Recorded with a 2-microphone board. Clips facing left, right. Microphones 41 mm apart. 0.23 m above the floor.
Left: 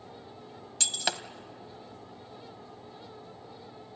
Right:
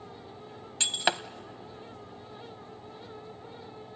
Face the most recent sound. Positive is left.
turn(degrees=-25)  # may be behind; listen again after turning